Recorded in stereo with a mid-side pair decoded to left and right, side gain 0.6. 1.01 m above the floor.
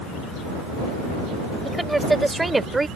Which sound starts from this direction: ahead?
A woman speaking, at 1.6 s.